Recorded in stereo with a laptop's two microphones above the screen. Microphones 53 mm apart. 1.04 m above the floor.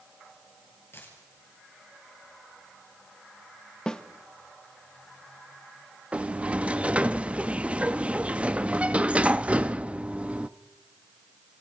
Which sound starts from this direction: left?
A dropped coin, at 0.9 s.